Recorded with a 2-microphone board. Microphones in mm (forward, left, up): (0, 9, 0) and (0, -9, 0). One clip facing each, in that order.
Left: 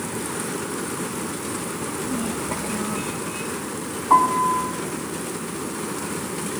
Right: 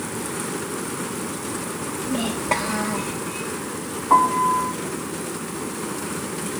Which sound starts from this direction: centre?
A piano, at 4.1 s.